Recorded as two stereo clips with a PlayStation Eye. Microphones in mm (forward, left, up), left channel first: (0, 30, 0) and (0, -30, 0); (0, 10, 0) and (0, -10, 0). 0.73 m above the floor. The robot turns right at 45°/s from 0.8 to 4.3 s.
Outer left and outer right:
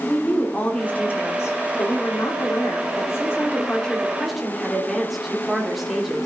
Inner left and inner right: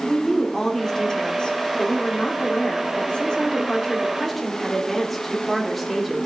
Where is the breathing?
I don't hear breathing.